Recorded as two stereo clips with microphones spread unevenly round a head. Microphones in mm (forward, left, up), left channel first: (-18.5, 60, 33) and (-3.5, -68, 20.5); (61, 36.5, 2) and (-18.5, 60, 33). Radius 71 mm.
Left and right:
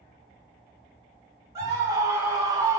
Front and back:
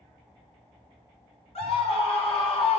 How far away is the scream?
About 1.9 m.